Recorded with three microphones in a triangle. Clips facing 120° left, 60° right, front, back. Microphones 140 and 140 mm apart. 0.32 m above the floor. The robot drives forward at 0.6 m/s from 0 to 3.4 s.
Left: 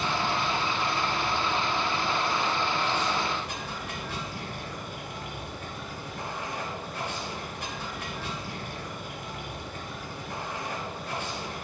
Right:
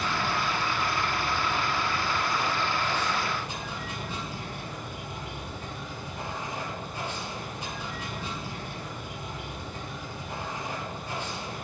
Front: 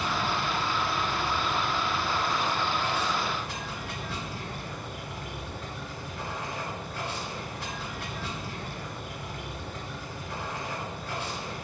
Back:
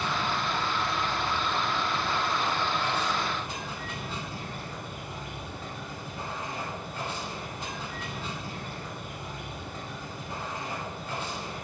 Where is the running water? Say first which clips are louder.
Left 1 dB, front 1 dB; 55° left, 2.5 m; by 11.7 s 110° left, 2 m.